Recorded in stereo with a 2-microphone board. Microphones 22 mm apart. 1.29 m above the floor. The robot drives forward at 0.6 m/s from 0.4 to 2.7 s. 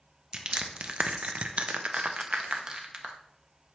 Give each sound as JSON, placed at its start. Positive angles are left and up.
{"t": 0.3, "sound": "crushing", "side_deg": -40, "distance_m": 0.8}